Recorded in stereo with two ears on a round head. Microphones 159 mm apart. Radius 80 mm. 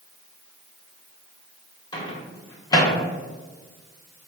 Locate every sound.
1.9 s a microwave: 20° left (ahead or behind), 0.6 m